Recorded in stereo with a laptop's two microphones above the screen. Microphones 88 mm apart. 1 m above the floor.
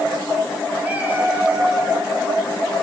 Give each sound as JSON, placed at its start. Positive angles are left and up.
{"t": 0.8, "sound": "a cat meowing", "side_deg": -20, "distance_m": 4.0}